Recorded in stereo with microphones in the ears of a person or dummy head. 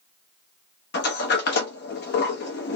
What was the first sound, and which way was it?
A sliding door, 55° left (ahead or behind).